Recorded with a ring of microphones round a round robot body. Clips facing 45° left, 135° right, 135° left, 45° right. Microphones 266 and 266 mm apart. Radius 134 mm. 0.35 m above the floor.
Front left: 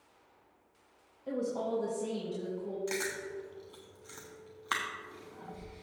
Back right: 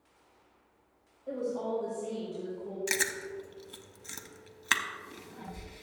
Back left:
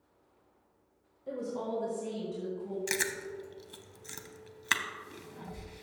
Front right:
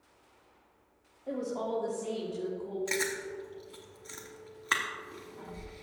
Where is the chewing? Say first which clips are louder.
Even, front right 2 dB; straight behind, 0.8 m.